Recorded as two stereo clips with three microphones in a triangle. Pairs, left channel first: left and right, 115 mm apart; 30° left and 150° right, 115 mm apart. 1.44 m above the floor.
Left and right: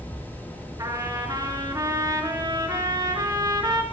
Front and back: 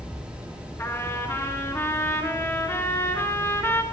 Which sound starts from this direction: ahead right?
A trumpet, at 0.8 s.